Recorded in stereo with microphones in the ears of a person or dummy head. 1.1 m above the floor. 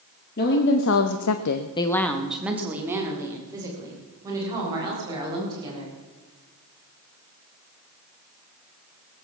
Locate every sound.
0.4 s a woman speaking: 50° left (ahead or behind), 1.8 m; by 6.0 s 25° right (ahead or behind), 7 m